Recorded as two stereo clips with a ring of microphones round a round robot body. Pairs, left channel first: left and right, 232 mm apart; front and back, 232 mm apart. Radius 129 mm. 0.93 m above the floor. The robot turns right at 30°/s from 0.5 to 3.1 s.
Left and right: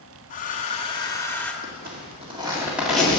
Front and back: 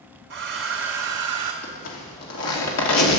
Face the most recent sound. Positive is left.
turn(degrees=5)